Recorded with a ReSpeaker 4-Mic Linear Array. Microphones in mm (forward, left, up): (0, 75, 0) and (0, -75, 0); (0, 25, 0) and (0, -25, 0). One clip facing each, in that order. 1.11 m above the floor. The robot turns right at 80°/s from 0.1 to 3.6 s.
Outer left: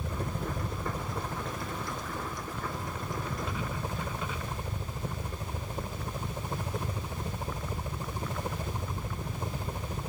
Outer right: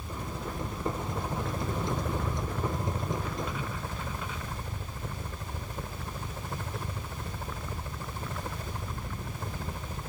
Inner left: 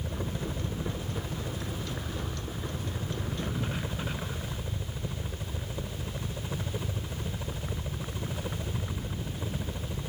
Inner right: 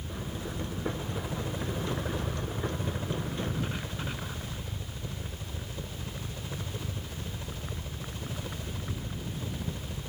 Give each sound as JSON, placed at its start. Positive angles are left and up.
{"t": 0.0, "sound": "a helicopter", "azimuth_deg": 100}